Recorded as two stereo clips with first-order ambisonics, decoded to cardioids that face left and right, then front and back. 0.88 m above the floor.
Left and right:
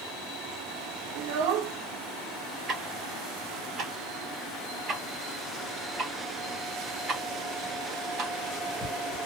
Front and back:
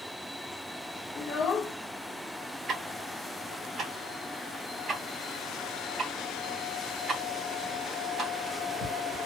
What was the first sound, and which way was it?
A child speaking, 60° right.